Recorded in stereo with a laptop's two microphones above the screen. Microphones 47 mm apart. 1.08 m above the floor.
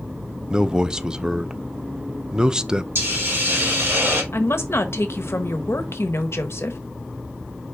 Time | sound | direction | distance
0.5 | a man speaking | 15° right (ahead or behind) | 0.6 m
3.0 | a hiss | 60° right (ahead or behind) | 4 m
4.3 | a woman speaking | 65° left (ahead or behind) | 1.1 m